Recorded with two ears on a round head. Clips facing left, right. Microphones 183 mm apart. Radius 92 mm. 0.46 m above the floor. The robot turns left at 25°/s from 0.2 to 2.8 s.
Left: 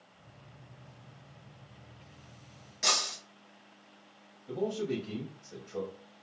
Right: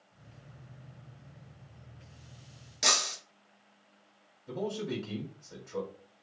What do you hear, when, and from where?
2.8 s breaking glass: 55° right (ahead or behind), 2.5 m
4.5 s a man speaking: 45° right (ahead or behind), 2.5 m